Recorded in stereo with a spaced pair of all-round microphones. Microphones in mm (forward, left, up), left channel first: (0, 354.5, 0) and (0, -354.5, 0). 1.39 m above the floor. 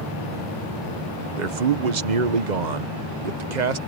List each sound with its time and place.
1.4 s a man speaking: 80° right